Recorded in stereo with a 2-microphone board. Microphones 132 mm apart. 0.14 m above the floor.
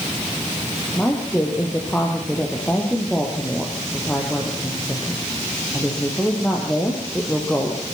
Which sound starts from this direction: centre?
A woman speaking, at 0.9 s.